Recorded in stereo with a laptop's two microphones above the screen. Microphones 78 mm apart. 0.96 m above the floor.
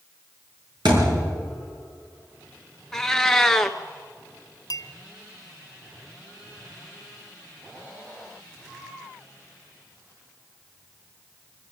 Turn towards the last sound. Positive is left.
turn(degrees=55)  # may be behind; listen again after turning